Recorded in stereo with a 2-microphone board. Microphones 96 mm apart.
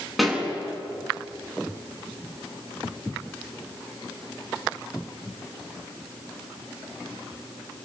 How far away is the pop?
About 7 m.